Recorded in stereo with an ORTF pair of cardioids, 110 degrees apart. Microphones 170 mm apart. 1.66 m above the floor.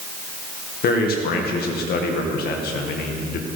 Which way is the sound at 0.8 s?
65° left.